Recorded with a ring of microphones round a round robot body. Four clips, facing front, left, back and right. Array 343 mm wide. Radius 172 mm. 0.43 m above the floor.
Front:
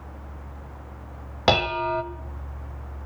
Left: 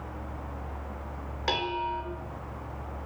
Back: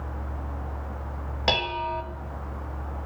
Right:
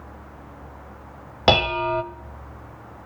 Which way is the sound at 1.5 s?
65° right.